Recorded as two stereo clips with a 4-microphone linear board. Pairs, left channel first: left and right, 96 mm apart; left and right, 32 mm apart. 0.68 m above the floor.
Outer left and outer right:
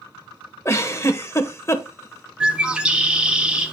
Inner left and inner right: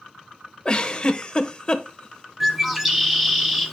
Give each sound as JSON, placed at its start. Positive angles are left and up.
{"t": 0.7, "sound": "a giggle", "side_deg": 30, "distance_m": 1.0}
{"t": 2.4, "sound": "a bird", "side_deg": -10, "distance_m": 1.3}